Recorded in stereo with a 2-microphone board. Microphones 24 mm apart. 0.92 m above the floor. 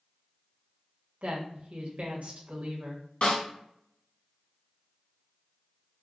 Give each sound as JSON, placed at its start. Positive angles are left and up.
{"t": 1.2, "sound": "a woman speaking", "side_deg": -70, "distance_m": 1.2}
{"t": 3.2, "sound": "a snare drum", "side_deg": 60, "distance_m": 1.7}